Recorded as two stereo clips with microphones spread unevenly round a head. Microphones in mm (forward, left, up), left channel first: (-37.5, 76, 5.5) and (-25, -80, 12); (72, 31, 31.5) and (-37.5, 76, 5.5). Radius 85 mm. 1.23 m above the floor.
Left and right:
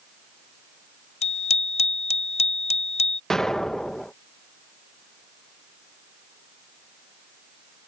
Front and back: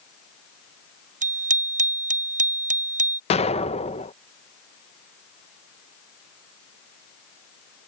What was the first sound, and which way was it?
A bicycle bell, 145° left.